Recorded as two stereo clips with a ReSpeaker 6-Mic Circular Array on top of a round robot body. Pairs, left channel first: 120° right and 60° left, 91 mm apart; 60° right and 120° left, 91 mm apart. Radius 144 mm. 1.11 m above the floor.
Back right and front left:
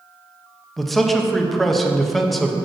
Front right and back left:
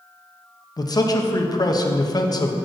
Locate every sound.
0.8 s a man speaking: 30° right, 0.8 m